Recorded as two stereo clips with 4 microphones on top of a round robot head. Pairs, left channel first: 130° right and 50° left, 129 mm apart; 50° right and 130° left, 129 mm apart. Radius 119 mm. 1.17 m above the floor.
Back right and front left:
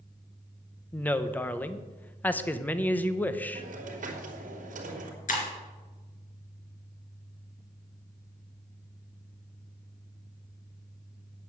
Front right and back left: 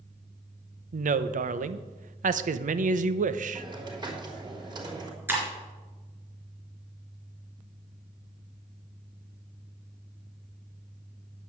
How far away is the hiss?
About 3 m.